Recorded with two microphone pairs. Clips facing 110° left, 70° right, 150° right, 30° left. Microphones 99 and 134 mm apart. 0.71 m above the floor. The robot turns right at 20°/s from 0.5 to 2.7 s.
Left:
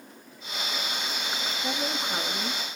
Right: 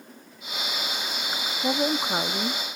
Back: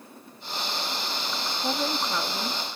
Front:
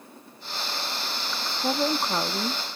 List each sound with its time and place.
1.6 s a woman speaking: 35° right, 0.7 m; by 2.6 s 15° right, 0.7 m